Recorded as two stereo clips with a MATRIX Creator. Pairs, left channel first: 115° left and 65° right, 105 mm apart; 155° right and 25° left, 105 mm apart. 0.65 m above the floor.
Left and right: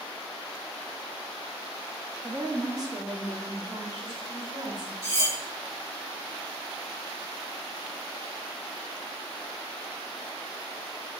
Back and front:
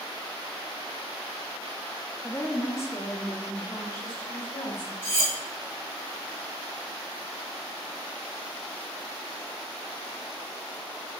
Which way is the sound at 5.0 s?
15° right.